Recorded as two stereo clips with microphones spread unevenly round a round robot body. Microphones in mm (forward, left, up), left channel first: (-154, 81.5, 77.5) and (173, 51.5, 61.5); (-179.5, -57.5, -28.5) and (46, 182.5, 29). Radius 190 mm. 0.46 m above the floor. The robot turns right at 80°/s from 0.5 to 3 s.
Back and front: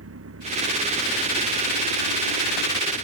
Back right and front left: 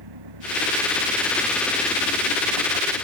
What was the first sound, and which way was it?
An engine running, 45° left.